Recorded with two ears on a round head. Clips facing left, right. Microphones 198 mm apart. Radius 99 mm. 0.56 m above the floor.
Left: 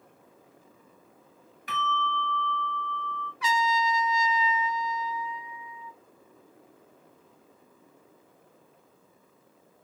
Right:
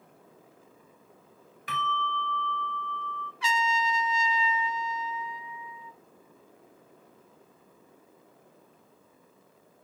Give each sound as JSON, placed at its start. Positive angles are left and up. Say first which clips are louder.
{"t": 1.7, "sound": "a bell", "louder": "left 2 dB", "side_deg": -70, "distance_m": 1.4}
{"t": 3.4, "sound": "a trumpet", "louder": "left 2 dB", "side_deg": -25, "distance_m": 0.7}